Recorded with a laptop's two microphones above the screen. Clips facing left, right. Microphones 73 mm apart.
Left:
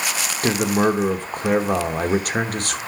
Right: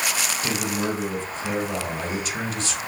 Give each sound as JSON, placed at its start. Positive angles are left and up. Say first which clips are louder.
{"t": 0.4, "sound": "a man speaking", "louder": "left 10 dB", "side_deg": 55, "distance_m": 1.3}